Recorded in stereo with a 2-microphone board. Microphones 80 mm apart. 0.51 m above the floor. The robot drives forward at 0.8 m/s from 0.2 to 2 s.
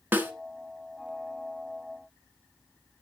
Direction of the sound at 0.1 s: 25° right (ahead or behind).